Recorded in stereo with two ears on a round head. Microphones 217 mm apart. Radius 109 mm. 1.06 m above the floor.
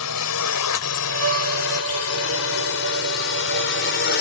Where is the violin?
60° right (ahead or behind).